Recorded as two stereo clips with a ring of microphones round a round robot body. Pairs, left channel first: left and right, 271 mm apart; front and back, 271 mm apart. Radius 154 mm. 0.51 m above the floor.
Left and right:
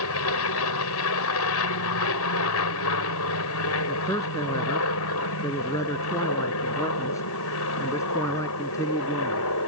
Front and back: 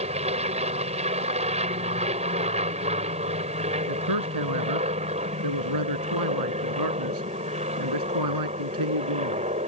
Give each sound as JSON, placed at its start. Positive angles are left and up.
{"t": 0.0, "sound": "an aircraft", "azimuth_deg": 115}
{"t": 3.9, "sound": "a man speaking", "azimuth_deg": 170}